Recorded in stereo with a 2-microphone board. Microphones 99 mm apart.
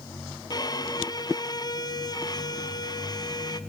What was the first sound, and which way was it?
A violin, 45° left (ahead or behind).